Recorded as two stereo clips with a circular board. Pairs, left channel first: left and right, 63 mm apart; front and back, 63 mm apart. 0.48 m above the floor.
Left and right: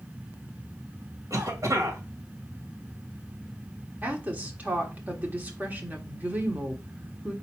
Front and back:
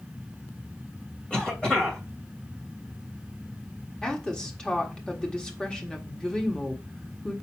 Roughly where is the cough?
Right.